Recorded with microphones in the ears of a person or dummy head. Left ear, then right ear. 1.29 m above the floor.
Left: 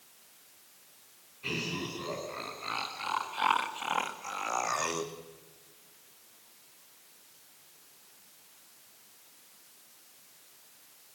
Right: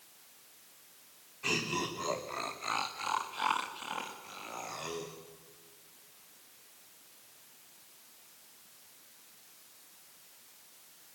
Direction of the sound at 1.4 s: 35° right (ahead or behind).